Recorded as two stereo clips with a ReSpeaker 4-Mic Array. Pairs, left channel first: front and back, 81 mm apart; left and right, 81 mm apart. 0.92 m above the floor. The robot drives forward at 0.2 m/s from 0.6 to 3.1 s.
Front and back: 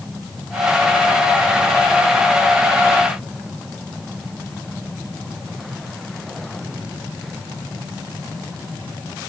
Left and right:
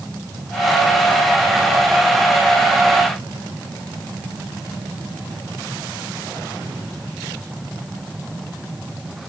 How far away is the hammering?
No hammering in this recording.